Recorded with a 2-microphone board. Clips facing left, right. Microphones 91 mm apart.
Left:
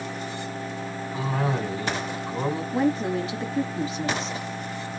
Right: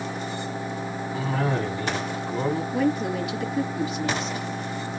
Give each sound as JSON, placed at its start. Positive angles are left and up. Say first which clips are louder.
{"t": 1.1, "sound": "a cough", "louder": "right 1 dB", "side_deg": 20, "distance_m": 2.0}
{"t": 2.7, "sound": "a woman speaking", "louder": "left 3 dB", "side_deg": 35, "distance_m": 1.2}